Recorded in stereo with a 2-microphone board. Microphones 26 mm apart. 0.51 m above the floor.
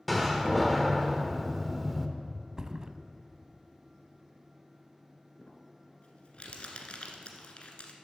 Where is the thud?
25° right (ahead or behind), 0.5 m.